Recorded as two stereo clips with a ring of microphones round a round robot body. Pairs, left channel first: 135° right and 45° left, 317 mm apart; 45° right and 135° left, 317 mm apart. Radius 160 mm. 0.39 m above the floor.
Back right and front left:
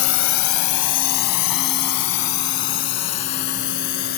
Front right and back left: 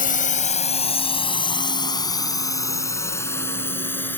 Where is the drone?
105° right; by 4.2 s 130° right.